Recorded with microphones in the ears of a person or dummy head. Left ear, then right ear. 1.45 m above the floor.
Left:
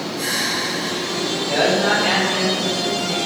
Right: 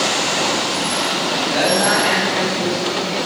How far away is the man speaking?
About 7 m.